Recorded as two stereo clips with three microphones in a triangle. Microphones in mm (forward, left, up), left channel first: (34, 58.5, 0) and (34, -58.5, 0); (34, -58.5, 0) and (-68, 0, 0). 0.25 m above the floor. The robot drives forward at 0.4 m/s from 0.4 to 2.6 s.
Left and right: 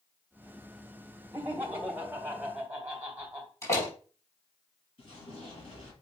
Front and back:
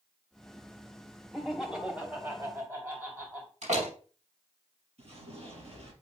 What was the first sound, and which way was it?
Laughter, 120° right.